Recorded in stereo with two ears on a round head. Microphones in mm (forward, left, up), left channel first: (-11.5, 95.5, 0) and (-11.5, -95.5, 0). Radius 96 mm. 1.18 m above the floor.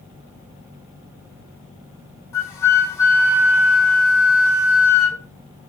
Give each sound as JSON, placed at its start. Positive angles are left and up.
{"t": 2.3, "sound": "a flute", "side_deg": 15, "distance_m": 6.5}